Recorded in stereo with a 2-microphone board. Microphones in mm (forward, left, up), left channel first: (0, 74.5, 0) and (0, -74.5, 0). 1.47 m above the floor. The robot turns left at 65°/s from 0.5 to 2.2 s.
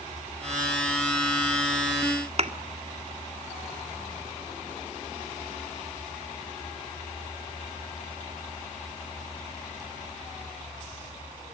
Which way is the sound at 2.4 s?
50° right (ahead or behind).